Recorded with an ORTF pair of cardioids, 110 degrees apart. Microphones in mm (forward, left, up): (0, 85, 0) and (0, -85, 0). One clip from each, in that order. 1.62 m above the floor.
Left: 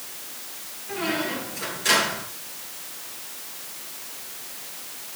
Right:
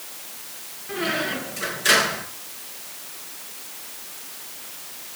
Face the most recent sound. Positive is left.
turn(degrees=-30)